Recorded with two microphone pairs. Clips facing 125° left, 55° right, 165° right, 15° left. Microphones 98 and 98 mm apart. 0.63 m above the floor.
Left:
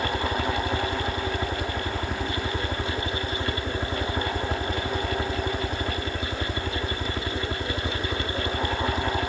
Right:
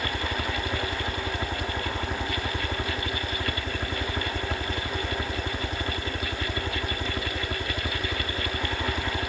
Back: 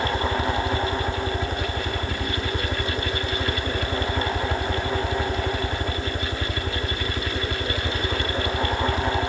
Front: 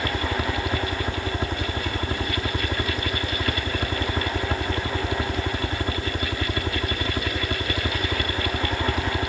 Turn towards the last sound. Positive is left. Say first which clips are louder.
# left 4 dB, back 2 dB
turn(degrees=40)